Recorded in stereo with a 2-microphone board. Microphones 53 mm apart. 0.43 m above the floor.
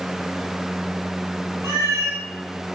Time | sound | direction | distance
1.6 | a cat meowing | 75° right (ahead or behind) | 2.5 m